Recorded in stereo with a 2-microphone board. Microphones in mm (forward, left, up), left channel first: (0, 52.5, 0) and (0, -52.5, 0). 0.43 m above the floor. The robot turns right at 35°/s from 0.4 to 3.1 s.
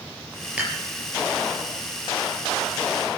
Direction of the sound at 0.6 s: 10° right (ahead or behind).